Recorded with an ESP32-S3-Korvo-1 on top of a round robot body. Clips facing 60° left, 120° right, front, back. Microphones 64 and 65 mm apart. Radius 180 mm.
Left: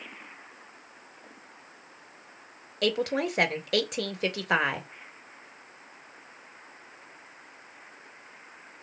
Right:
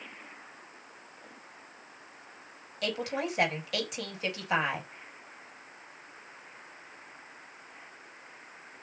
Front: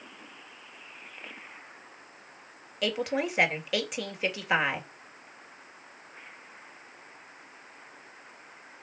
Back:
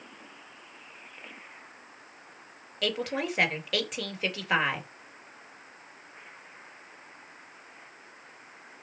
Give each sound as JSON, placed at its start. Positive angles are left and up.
{"t": 2.8, "sound": "a woman speaking", "azimuth_deg": 85, "distance_m": 3.5}